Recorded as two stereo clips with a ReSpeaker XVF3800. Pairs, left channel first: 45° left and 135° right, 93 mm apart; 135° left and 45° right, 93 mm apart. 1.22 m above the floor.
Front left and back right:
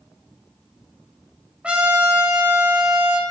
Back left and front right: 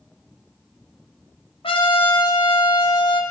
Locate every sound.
1.6 s a trumpet: 145° left, 2.5 m